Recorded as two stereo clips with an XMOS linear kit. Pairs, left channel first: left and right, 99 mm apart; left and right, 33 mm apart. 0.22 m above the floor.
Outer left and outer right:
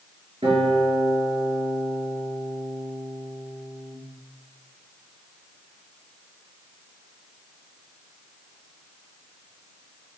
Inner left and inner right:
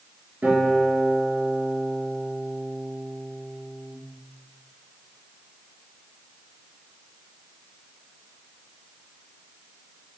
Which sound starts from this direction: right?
A guitar, at 0.4 s.